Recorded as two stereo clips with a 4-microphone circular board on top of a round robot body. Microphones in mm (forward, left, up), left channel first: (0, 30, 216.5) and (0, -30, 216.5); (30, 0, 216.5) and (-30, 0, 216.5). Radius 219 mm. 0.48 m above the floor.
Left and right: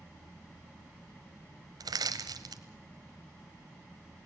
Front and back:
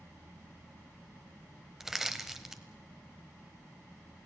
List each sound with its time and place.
1.8 s crushing: 100° right, 0.8 m